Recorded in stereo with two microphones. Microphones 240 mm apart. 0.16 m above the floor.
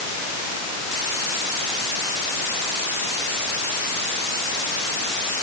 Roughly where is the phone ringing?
I don't hear a phone ringing.